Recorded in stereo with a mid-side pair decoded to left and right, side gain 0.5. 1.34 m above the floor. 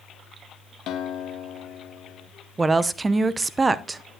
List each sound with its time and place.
0.9 s a guitar: 65° left, 1.7 m
2.6 s a woman speaking: 30° right, 0.6 m